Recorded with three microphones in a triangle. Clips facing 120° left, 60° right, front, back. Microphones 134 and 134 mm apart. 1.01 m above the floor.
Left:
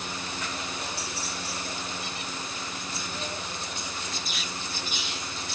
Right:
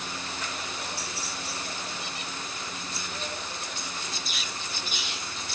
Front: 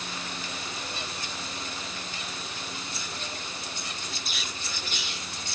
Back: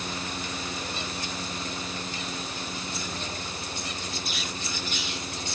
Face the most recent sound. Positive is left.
No sound to turn to.